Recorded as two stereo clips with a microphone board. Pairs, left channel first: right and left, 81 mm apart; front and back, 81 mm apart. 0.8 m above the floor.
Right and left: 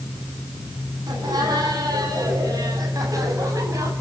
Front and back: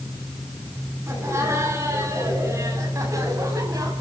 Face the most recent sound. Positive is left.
turn(degrees=135)